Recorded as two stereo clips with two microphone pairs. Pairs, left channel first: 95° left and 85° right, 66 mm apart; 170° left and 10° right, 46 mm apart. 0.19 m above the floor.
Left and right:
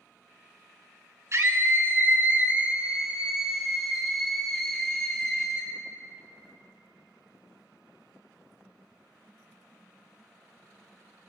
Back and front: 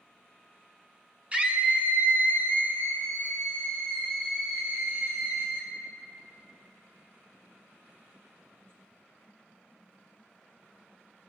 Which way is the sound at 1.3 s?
70° right.